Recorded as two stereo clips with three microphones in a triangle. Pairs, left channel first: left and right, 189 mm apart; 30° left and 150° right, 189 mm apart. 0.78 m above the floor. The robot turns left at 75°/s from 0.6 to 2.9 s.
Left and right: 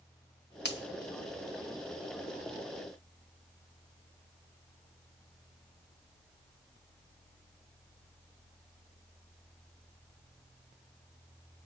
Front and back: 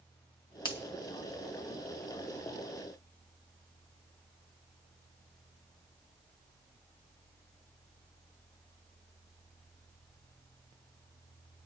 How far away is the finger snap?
About 1.3 m.